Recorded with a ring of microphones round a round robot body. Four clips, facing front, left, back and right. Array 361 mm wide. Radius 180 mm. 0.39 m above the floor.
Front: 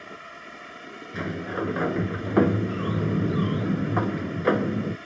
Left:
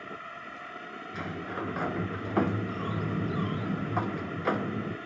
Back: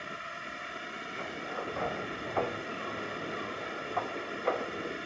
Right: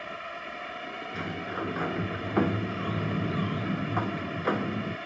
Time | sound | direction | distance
0.0 | a drone | 100° right | ?
1.1 | a sliding door | 5° right | ?